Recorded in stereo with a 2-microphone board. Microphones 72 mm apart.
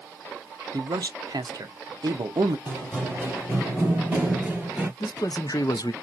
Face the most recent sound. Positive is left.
turn(degrees=65)  # may be behind; listen again after turning